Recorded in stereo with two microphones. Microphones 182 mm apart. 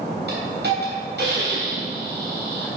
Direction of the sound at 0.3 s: 70° right (ahead or behind).